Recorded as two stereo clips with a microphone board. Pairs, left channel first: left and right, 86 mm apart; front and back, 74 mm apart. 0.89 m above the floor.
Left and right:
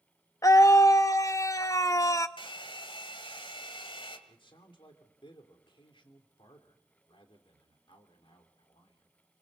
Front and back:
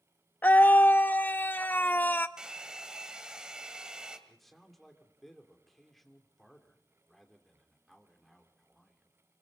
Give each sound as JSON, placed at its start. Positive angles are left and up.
{"t": 0.4, "sound": "a scream", "azimuth_deg": 55, "distance_m": 0.6}
{"t": 2.4, "sound": "a hair dryer", "azimuth_deg": 100, "distance_m": 2.0}
{"t": 4.3, "sound": "a man speaking", "azimuth_deg": 90, "distance_m": 3.0}